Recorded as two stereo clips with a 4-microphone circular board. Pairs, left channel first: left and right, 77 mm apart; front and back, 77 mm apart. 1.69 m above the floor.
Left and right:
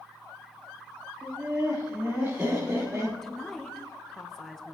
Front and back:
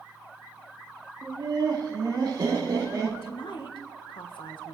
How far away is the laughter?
About 3.5 m.